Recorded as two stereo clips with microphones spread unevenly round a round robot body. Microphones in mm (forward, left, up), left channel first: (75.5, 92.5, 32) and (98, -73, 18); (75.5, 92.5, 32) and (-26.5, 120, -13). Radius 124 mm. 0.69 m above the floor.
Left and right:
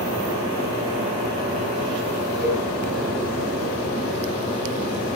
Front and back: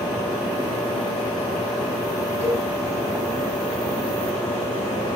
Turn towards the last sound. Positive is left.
turn(degrees=-60)